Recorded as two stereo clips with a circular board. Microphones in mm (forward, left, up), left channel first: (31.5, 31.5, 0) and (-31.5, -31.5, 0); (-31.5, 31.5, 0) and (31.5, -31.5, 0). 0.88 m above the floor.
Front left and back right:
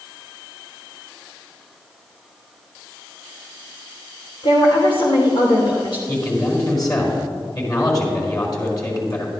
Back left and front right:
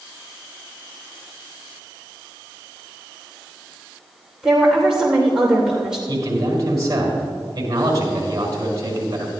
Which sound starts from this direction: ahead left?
A woman speaking, at 4.4 s.